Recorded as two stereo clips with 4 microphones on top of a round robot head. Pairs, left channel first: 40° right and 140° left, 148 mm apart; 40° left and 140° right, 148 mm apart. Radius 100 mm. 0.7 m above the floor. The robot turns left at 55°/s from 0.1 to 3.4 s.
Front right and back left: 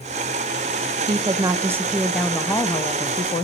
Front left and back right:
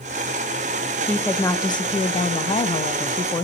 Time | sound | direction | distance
1.1 | a woman speaking | 115° left | 0.5 m